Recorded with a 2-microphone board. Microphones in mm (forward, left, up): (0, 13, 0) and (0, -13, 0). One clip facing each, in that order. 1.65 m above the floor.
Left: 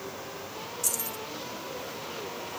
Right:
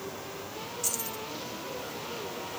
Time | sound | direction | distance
0.8 | keys jangling | 10° right (ahead or behind) | ?